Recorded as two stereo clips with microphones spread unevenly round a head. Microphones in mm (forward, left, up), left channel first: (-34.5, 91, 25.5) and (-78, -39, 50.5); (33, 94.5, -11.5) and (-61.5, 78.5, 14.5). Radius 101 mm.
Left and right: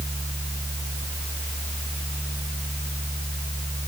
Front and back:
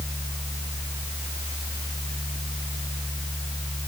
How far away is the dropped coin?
I don't hear a dropped coin.